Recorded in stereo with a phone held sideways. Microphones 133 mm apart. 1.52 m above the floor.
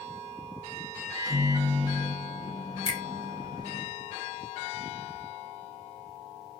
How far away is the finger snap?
About 0.6 m.